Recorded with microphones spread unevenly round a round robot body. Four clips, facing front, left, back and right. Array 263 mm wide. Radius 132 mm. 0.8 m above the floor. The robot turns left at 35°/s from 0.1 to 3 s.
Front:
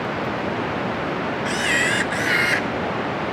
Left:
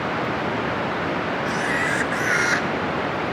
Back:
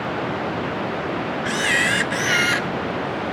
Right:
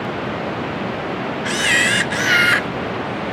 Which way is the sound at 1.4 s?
100° right.